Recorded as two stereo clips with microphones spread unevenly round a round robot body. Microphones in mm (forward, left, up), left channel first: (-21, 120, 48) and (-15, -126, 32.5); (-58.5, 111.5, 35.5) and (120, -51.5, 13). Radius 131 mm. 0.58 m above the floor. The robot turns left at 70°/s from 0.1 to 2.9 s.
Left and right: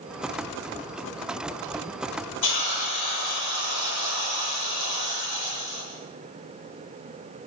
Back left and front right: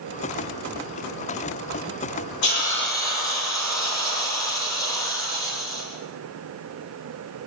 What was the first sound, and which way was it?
A hiss, 95° left.